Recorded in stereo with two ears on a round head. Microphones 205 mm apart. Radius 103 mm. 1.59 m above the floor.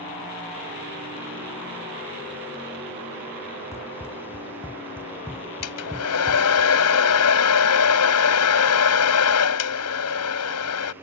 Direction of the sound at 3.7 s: 10° left (ahead or behind).